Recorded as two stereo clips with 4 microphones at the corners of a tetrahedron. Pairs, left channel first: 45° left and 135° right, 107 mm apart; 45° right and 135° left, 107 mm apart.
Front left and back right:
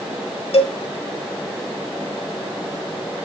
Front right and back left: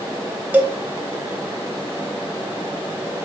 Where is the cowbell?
60° left, 0.5 m.